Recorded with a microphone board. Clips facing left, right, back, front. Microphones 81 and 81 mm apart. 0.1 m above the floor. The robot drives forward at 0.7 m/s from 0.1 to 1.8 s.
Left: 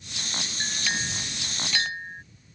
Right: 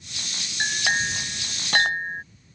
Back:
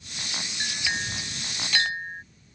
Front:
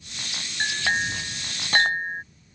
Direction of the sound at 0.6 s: 45° right.